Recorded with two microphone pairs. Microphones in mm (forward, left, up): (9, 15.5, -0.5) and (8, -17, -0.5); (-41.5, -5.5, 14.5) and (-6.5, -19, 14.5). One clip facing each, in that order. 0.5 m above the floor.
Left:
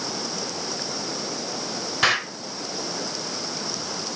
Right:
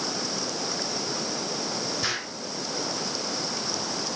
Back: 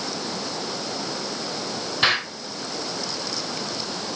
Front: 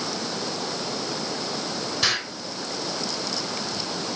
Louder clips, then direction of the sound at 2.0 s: Left 8 dB, back 6 dB; 100° left.